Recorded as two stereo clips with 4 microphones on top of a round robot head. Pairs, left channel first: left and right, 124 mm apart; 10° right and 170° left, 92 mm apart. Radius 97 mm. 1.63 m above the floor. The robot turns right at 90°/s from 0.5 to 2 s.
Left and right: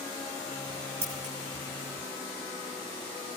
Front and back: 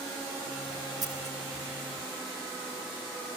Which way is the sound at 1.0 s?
150° right.